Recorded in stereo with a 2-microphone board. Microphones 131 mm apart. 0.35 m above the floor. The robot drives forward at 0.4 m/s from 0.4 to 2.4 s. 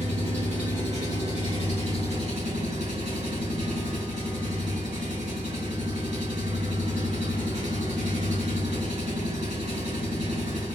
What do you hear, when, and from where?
0.0 s an engine running: 65° right (ahead or behind), 3 m; by 10.8 s 60° right (ahead or behind), 3.5 m